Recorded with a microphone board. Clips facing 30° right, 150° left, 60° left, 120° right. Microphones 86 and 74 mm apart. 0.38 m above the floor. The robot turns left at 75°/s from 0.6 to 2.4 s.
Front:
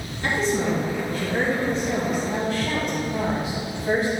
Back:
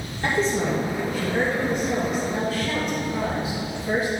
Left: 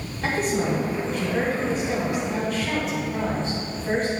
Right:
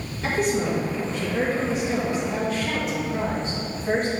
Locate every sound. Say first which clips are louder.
0.2 s a woman speaking: even, even; 110° left, 2 m; by 4.2 s 25° right, 2 m